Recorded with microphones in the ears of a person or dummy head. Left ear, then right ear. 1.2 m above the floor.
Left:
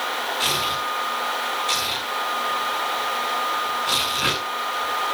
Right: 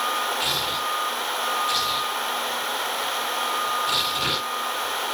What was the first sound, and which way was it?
Tearing paper, 25° left (ahead or behind).